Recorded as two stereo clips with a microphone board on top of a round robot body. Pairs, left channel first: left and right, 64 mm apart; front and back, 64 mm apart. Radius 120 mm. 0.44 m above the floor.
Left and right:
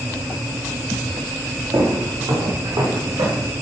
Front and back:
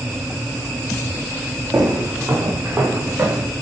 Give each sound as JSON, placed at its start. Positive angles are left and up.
{"t": 1.7, "sound": "footsteps", "azimuth_deg": -135, "distance_m": 3.5}